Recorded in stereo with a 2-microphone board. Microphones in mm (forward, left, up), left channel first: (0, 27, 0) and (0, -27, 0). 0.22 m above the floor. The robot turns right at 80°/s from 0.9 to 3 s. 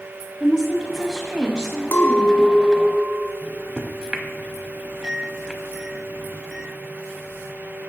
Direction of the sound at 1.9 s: 90° left.